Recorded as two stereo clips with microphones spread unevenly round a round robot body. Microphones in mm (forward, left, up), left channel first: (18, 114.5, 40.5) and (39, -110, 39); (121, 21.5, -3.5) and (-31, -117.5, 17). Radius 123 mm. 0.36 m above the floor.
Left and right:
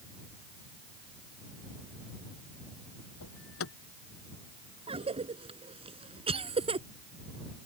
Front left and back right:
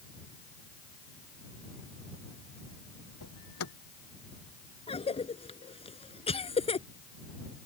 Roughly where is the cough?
Ahead.